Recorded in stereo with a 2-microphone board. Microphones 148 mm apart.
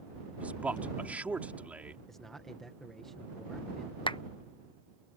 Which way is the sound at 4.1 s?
35° left (ahead or behind).